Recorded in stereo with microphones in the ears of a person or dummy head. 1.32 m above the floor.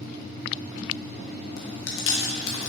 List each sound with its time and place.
1.6 s chewing: 65° left (ahead or behind), 1.0 m